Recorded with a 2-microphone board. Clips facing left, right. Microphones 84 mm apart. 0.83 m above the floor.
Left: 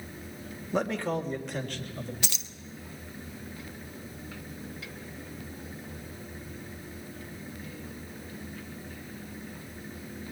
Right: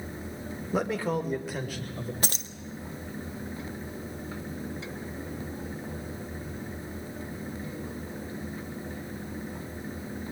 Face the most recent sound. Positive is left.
turn(degrees=-40)  # may be behind; listen again after turning